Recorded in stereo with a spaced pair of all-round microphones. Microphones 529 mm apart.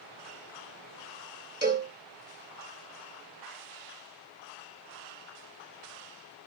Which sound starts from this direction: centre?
A cowbell, at 1.6 s.